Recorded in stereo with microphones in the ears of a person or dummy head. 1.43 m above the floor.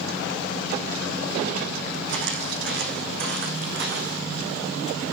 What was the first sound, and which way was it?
Footsteps, 65° right (ahead or behind).